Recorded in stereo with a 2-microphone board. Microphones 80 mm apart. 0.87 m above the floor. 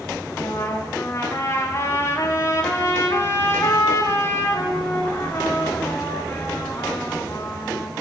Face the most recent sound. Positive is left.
turn(degrees=35)  # may be behind; listen again after turning